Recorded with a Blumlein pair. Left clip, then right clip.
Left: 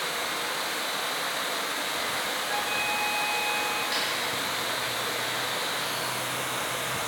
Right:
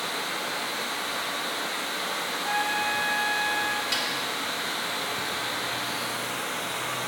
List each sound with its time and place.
0.0 s running water: 45° left, 1.7 m
2.4 s a trumpet: 20° right, 0.7 m
3.9 s a snare drum: 20° right, 1.6 m